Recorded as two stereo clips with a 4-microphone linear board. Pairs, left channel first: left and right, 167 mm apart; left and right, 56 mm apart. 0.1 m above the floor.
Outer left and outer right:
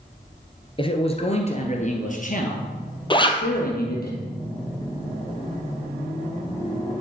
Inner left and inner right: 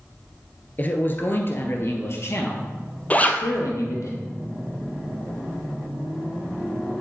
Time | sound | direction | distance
0.8 | a man speaking | 30° left (ahead or behind) | 1.8 m
3.1 | a zipper | 25° left (ahead or behind) | 1.1 m